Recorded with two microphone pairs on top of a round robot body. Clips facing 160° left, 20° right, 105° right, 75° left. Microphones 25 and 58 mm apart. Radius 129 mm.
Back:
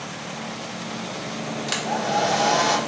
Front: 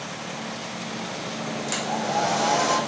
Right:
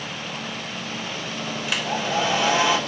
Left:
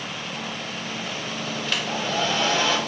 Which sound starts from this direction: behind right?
A hair dryer, at 1.7 s.